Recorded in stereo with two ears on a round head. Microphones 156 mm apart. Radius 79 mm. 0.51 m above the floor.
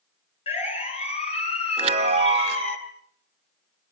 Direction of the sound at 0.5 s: 35° left (ahead or behind).